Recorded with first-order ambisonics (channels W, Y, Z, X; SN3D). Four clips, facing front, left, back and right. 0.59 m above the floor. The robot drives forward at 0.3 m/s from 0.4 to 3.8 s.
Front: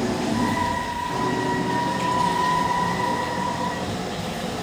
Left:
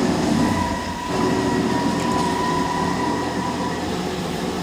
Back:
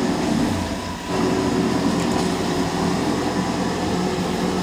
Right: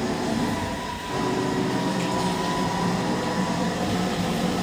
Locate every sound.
0.0 s an engine running: 115° left, 1.0 m; by 4.6 s 155° left, 1.6 m